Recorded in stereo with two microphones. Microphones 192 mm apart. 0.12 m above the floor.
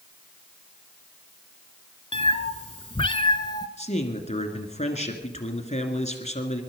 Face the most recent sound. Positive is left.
turn(degrees=35)  # may be behind; listen again after turning